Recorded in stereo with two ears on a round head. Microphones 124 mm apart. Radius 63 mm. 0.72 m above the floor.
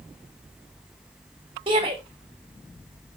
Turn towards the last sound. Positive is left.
turn(degrees=-40)  # may be behind; listen again after turning